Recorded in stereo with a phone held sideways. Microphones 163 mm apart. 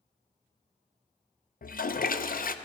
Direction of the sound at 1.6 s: 60° left (ahead or behind).